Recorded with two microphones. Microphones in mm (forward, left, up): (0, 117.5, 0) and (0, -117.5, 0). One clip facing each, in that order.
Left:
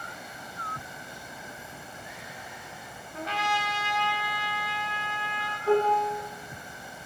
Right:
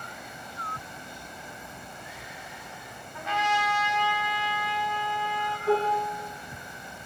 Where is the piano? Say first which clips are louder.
Left 2 dB; 50° left (ahead or behind), 1.1 m.